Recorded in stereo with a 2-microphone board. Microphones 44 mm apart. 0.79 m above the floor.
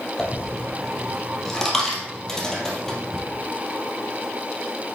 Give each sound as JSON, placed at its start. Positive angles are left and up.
{"t": 0.2, "sound": "a dropped coin", "side_deg": 10, "distance_m": 2.5}